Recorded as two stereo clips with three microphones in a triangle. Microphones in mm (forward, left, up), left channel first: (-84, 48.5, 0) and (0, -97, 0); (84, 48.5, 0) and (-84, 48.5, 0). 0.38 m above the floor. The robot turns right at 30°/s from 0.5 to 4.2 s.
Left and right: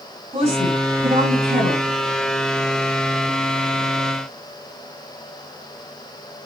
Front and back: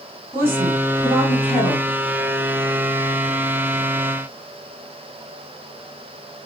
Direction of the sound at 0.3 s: 105° right.